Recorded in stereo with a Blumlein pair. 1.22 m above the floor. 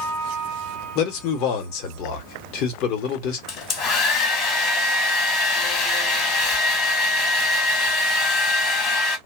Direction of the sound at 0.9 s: 40° left.